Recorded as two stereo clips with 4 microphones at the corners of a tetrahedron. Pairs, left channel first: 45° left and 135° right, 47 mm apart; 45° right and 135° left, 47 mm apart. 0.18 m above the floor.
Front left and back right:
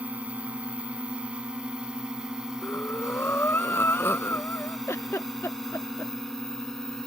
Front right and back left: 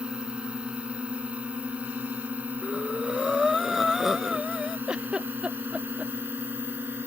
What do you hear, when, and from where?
0.0 s a drone: 170° right; by 7.1 s 120° left
2.6 s breathing: 50° left
4.9 s a giggle: 60° left